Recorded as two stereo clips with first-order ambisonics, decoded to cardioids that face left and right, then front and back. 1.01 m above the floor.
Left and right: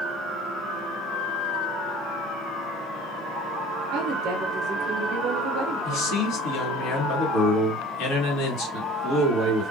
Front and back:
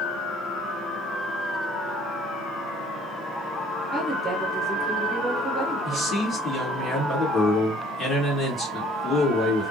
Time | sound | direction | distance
3.9 | a woman speaking | 110° right | 0.6 m
5.8 | a man speaking | 80° left | 1.5 m